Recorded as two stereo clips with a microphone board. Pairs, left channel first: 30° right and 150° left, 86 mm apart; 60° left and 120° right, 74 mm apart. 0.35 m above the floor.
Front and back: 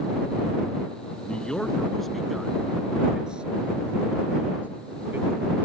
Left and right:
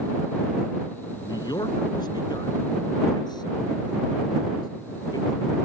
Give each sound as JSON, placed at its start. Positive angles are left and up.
{"t": 1.2, "sound": "a man speaking", "azimuth_deg": 45}